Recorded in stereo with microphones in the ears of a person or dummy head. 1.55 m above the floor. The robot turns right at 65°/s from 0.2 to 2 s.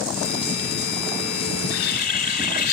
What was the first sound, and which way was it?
A bird, 100° left.